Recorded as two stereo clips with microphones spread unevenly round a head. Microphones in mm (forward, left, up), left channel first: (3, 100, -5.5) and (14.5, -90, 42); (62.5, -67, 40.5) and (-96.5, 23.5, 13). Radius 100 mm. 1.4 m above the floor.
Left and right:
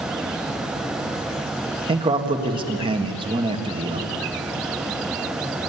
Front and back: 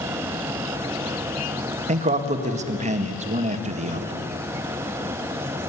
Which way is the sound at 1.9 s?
155° right.